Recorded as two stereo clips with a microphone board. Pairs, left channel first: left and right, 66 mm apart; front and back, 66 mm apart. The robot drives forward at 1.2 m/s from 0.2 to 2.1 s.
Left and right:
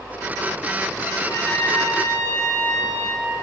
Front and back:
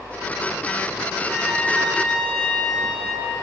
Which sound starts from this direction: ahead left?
A trumpet, at 1.2 s.